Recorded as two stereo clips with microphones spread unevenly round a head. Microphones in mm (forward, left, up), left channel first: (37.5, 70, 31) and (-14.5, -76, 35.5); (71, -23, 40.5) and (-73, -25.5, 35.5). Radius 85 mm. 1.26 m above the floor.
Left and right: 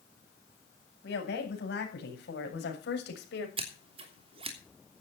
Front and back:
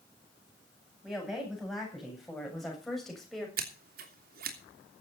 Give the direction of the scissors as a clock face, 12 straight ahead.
6 o'clock.